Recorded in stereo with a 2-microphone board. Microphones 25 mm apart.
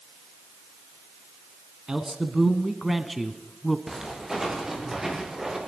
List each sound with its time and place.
1.9 s a man speaking: 30° right (ahead or behind), 1.4 m; by 3.8 s 15° left (ahead or behind), 1.3 m
3.9 s footsteps: 15° right (ahead or behind), 7.5 m; by 5.6 s 20° right (ahead or behind), 6.5 m